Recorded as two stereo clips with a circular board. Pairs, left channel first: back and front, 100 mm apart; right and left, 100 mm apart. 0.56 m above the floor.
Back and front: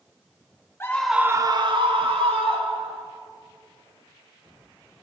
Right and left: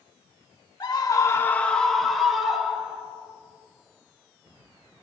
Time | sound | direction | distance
0.8 | a scream | 125° right | 1.0 m